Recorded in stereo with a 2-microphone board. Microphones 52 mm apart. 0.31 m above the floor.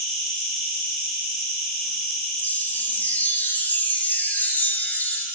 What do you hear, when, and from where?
0.0 s an insect: centre (ahead or behind), 2 m
2.4 s a chime: 35° left (ahead or behind), 0.6 m